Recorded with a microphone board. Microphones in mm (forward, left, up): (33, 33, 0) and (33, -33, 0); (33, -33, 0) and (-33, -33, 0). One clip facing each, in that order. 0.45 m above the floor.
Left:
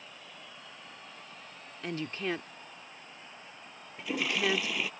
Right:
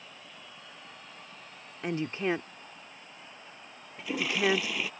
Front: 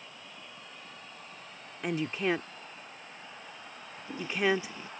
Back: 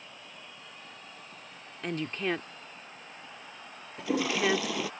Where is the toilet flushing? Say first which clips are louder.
Right 2 dB, back 4 dB; straight behind.